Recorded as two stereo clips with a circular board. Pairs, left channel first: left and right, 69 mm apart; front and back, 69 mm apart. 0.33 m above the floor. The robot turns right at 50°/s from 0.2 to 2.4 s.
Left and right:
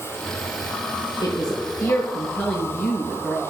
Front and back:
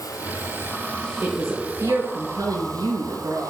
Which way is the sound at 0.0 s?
35° left.